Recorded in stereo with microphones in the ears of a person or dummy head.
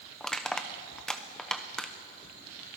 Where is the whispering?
No whispering in this recording.